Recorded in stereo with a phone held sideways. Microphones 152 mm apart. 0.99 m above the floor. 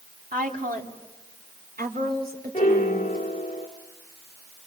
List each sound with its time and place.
0.3 s a woman speaking: 65° right (ahead or behind), 3 m; by 3.2 s 70° right (ahead or behind), 4.5 m
2.5 s a piano: 50° left (ahead or behind), 3 m